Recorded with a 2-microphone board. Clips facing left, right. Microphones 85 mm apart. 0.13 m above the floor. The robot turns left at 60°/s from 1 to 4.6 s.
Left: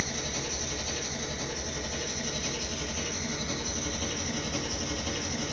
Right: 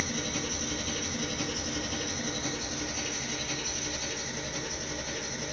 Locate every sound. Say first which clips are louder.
0.0 s an engine running: right 1 dB; 55° right, 1.9 m; by 5.5 s 90° left, 1.9 m